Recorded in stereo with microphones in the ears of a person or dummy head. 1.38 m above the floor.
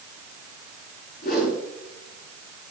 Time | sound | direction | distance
1.2 | a whoosh | 50° left (ahead or behind) | 5.5 m